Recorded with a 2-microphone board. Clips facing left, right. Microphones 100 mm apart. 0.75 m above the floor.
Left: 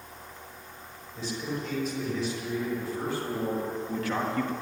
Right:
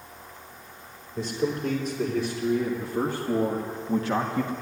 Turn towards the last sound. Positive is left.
turn(degrees=-10)  # may be behind; listen again after turning